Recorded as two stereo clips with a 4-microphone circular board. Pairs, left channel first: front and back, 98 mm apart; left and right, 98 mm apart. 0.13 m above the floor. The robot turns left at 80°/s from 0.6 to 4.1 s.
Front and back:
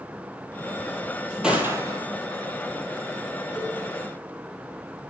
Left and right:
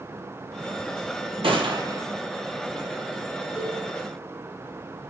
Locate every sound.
1.4 s a gunshot: 100° right, 1.3 m; by 2.0 s 145° right, 1.3 m
3.5 s a cowbell: 100° right, 1.8 m; by 3.8 s 120° right, 1.8 m